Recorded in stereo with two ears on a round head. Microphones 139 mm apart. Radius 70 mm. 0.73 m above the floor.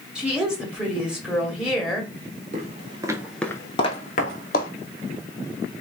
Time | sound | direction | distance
0.1 | a woman speaking | 5° right (ahead or behind) | 1.6 m
2.5 | footsteps | 50° right (ahead or behind) | 1.0 m